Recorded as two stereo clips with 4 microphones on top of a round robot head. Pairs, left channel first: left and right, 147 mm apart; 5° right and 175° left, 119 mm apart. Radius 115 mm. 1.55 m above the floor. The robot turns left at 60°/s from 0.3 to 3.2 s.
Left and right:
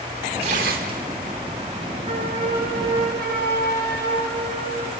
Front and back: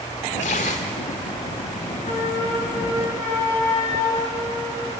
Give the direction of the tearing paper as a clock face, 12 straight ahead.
1 o'clock.